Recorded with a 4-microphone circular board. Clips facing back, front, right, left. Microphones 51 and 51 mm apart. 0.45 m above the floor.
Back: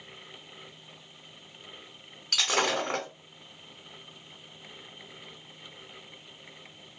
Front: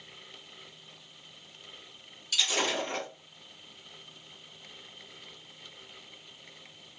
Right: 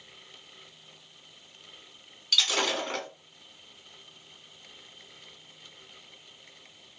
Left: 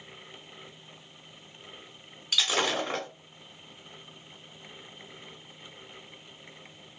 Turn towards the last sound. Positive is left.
turn(degrees=165)